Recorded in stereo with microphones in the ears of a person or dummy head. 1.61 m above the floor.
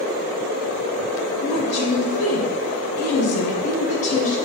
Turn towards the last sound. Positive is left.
turn(degrees=55)  # may be behind; listen again after turning